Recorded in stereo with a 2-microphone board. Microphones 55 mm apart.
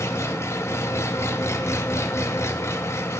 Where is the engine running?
60° left (ahead or behind), 0.7 m.